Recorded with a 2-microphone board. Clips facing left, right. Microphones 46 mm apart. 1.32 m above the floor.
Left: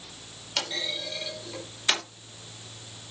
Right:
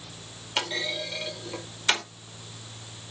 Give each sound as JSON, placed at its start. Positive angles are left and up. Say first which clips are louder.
{"t": 0.6, "sound": "a clunk", "louder": "right 3 dB", "side_deg": -20, "distance_m": 4.0}